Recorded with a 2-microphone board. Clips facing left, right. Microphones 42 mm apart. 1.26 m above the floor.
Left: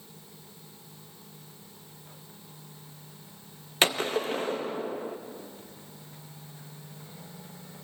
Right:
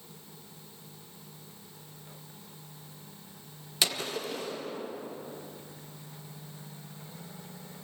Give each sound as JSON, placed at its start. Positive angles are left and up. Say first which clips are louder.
{"t": 3.8, "sound": "a gunshot", "louder": "left 6 dB", "side_deg": 40, "distance_m": 1.6}